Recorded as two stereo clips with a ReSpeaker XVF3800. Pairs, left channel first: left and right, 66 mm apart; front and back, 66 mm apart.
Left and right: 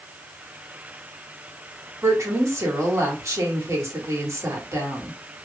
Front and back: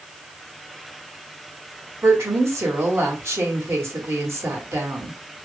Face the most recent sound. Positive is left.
turn(degrees=-130)